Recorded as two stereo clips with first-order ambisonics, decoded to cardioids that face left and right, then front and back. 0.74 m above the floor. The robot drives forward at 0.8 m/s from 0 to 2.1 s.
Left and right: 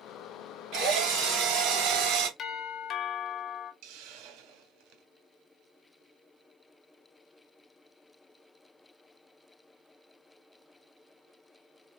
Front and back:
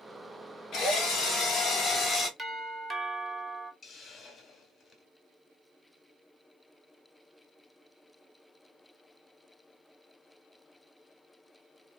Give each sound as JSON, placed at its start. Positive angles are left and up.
{"t": 0.7, "sound": "a drill", "azimuth_deg": -55, "distance_m": 3.0}
{"t": 2.4, "sound": "a doorbell", "azimuth_deg": 120, "distance_m": 1.0}
{"t": 3.8, "sound": "a hiss", "azimuth_deg": -75, "distance_m": 0.9}